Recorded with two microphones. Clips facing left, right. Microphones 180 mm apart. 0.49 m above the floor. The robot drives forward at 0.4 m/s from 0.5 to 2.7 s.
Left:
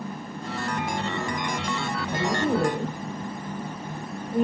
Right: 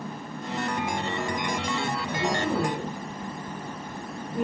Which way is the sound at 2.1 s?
50° left (ahead or behind).